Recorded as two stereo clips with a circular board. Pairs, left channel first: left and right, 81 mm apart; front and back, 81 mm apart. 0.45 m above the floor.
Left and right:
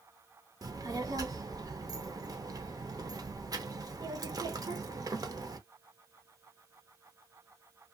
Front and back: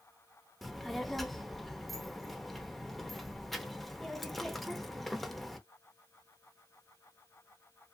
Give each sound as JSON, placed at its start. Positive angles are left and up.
{"t": 0.6, "sound": "a child speaking", "azimuth_deg": -85, "distance_m": 0.6}